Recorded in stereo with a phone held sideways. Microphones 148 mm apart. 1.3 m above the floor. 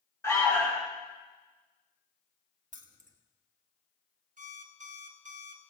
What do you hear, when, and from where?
0.2 s an alarm: 20° left (ahead or behind), 3 m
2.7 s keys jangling: 60° right (ahead or behind), 1.1 m
4.4 s an alarm clock: 60° right (ahead or behind), 1.0 m